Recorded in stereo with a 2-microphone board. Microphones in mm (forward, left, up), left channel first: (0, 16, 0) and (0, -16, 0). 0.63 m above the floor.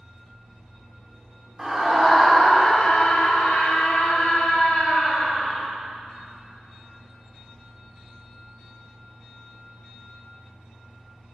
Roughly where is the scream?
Centre.